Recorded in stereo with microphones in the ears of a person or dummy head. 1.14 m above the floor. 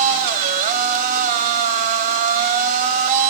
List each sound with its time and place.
0.0 s a machine running: 45° right (ahead or behind), 1.8 m